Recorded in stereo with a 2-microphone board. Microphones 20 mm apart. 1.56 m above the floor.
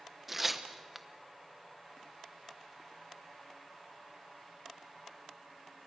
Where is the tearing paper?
15° right (ahead or behind), 1.1 m.